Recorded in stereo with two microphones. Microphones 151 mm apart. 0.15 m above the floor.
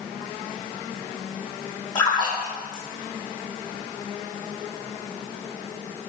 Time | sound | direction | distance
1.9 | a splash | 30° left (ahead or behind) | 4 m